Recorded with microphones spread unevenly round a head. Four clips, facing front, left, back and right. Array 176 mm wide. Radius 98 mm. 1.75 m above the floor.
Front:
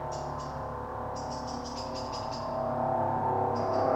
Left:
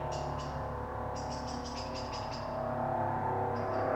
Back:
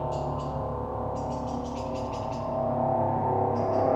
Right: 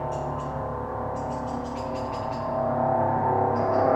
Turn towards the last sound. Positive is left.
turn(degrees=-115)